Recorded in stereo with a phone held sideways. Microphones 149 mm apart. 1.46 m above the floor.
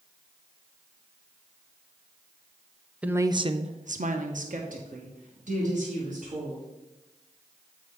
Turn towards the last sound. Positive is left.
turn(degrees=-60)  # may be behind; listen again after turning